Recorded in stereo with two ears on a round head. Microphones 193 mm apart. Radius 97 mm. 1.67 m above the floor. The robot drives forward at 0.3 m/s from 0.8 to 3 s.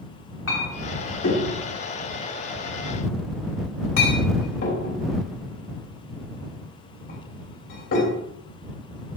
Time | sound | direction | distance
0.5 | a clink | 70° left (ahead or behind) | 2.5 m